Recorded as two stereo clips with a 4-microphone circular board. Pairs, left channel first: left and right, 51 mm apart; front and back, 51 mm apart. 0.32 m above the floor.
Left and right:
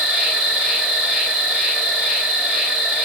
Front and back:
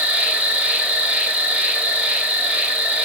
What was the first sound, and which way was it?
An insect, 155° right.